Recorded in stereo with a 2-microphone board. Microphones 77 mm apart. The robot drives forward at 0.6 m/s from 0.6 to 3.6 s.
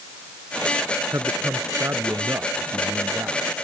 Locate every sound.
1.1 s a man speaking: 35° right (ahead or behind); by 3.5 s 30° right (ahead or behind)